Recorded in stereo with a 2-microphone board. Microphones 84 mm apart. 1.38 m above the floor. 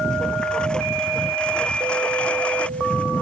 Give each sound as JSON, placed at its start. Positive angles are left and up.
{"t": 0.0, "sound": "a lawn mower", "side_deg": 10}